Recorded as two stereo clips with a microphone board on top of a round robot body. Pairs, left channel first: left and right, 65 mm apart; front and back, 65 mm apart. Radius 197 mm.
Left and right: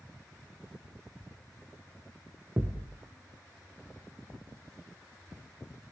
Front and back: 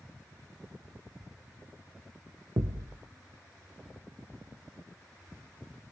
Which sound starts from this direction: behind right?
A thud, at 2.6 s.